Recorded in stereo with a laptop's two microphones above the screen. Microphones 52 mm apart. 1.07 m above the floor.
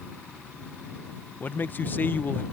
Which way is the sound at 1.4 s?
40° left (ahead or behind).